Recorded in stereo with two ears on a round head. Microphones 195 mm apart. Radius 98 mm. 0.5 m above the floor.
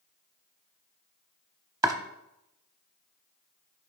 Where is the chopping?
15° right (ahead or behind), 0.8 m.